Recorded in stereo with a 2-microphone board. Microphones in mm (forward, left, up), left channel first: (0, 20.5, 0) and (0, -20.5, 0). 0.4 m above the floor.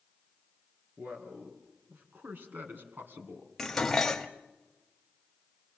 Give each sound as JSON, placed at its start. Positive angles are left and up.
{"t": 1.0, "sound": "a man speaking", "side_deg": -55, "distance_m": 5.0}
{"t": 3.6, "sound": "dishes clattering", "side_deg": 10, "distance_m": 1.2}